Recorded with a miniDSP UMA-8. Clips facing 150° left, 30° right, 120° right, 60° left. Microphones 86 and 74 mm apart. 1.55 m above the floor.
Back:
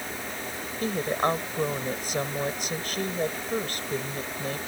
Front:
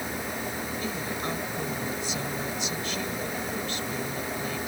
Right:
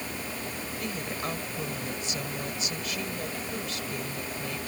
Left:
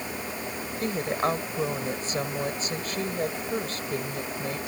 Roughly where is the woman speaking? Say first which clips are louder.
Back 10 dB, left 9 dB; left.